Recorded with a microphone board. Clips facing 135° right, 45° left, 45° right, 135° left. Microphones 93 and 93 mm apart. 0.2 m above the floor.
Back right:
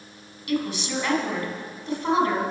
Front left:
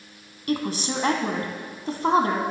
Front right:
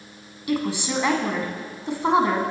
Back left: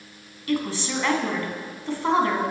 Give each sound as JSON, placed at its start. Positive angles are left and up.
{"t": 0.5, "sound": "a woman speaking", "azimuth_deg": 20, "distance_m": 1.6}